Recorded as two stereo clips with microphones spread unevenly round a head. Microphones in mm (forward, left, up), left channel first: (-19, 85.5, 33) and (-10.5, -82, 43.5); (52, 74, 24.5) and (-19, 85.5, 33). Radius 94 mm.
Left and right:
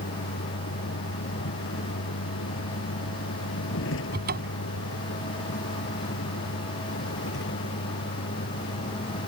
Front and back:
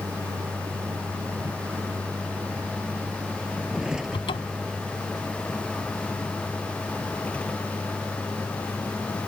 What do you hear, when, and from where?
0.0 s a vehicle: 120° left; by 9.3 s 55° left
4.1 s a cupboard door: 45° right